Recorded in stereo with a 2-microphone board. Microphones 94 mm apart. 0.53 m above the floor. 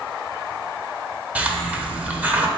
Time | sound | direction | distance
1.4 | a hiss | 15° right (ahead or behind) | 1.0 m